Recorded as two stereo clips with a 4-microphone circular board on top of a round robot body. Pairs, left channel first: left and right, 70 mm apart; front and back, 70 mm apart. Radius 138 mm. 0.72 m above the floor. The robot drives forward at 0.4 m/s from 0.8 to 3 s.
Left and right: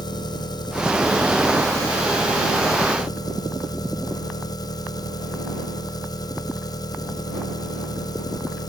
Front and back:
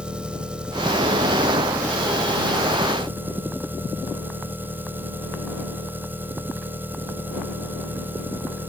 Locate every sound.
0.0 s an engine running: 105° left; by 8.7 s 115° left